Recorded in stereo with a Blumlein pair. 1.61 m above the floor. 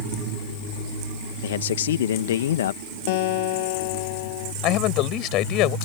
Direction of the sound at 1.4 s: 60° left.